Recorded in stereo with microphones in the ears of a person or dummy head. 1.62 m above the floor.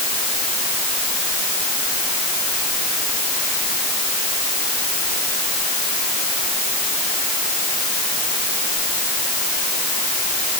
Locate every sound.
Only background noise.